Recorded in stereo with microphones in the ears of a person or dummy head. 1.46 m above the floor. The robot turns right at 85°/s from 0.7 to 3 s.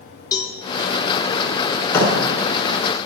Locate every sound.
0.3 s a cowbell: 20° left (ahead or behind), 1.8 m
1.9 s a thud: 15° left (ahead or behind), 6 m; by 2.1 s 30° left (ahead or behind), 6 m